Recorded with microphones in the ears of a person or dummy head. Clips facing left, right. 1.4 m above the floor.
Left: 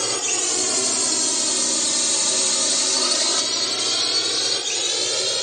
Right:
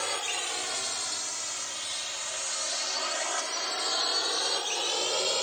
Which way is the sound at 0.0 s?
55° left (ahead or behind).